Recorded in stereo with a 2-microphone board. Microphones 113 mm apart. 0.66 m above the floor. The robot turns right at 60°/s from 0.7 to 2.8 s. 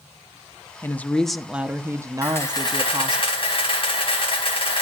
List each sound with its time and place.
0.8 s a woman speaking: 150° left, 0.8 m; by 3.2 s 90° right, 0.8 m
2.2 s a camera shutter: 15° left, 4.5 m; by 4.8 s 50° left, 4.5 m